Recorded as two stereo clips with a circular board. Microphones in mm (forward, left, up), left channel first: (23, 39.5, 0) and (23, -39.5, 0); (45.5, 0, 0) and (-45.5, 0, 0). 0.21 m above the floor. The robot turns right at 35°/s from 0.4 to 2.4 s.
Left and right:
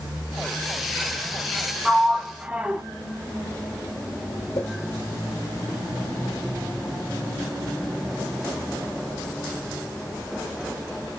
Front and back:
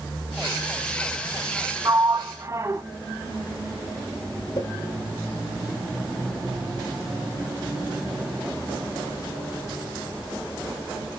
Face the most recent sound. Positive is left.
turn(degrees=40)